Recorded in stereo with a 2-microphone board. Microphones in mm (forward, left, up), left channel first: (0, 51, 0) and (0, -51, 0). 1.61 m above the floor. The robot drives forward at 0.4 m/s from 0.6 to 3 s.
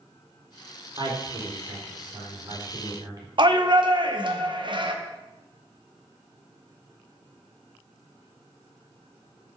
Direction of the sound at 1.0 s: 50° right (ahead or behind).